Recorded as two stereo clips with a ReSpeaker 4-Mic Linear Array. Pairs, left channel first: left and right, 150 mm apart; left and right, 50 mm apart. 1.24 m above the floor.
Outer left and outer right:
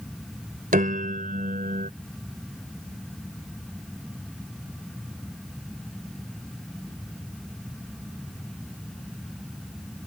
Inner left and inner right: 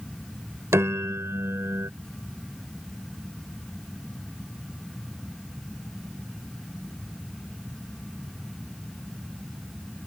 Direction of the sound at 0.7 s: 70° right (ahead or behind).